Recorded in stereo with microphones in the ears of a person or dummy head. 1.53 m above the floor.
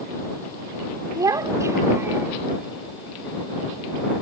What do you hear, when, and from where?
1.1 s a child speaking: 20° right (ahead or behind); by 2.3 s 10° right (ahead or behind)